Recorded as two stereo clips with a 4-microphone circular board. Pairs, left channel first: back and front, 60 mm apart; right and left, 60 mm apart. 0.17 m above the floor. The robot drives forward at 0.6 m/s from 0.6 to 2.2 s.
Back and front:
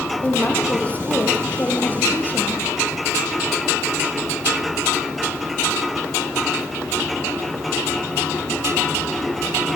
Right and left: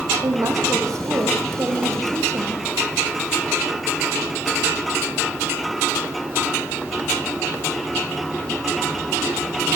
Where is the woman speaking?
115° left, 6 m; by 2.6 s 120° left, 6.5 m.